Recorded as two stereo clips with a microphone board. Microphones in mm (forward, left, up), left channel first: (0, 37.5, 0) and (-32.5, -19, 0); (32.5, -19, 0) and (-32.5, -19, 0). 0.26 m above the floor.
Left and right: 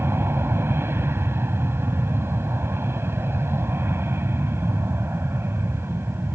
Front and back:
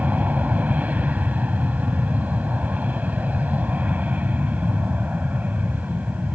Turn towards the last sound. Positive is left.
turn(degrees=-135)